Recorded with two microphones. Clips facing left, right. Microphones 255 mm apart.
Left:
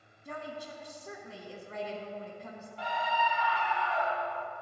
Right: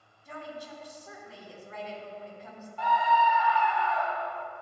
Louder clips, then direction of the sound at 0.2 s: Even; 55° left (ahead or behind).